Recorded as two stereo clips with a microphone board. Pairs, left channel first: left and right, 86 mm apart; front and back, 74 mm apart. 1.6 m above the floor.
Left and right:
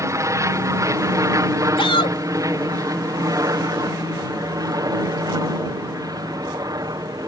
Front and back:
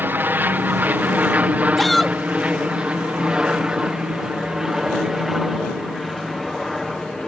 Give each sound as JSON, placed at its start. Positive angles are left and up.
{"t": 0.0, "sound": "an aircraft", "azimuth_deg": -125}
{"t": 1.8, "sound": "a shout", "azimuth_deg": 85}